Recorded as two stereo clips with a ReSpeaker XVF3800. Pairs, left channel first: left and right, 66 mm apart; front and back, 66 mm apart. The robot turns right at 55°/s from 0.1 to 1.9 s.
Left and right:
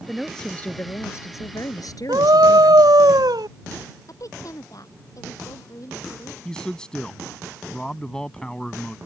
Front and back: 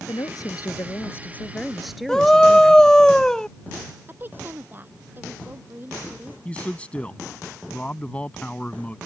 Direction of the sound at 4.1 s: 120° left.